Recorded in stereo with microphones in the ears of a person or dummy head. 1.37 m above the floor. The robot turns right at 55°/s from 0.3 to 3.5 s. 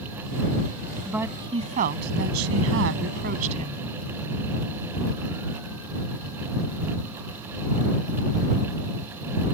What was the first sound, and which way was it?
A woman speaking, 175° right.